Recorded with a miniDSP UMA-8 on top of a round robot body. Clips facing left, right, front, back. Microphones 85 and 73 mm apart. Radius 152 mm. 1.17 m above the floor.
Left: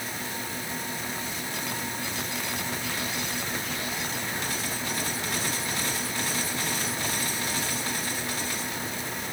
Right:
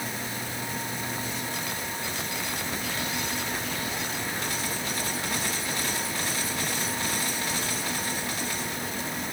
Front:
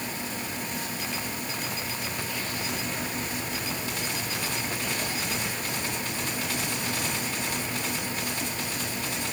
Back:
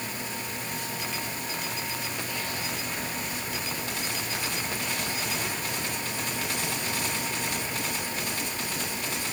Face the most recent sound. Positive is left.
No sound to turn to.